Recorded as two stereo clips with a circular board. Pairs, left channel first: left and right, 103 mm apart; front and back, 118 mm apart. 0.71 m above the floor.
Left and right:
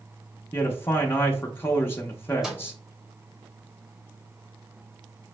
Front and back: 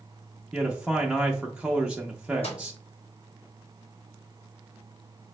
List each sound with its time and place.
0.5 s a man speaking: 110° left, 0.6 m
2.4 s a microwave: 10° right, 1.1 m